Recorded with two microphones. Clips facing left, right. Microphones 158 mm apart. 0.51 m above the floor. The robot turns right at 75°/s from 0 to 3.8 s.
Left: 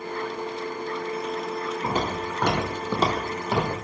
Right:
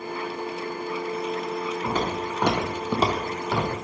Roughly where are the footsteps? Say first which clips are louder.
Even; left.